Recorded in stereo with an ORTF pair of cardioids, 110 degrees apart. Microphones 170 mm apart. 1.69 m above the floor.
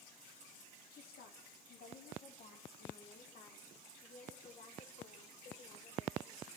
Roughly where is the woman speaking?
Ahead left.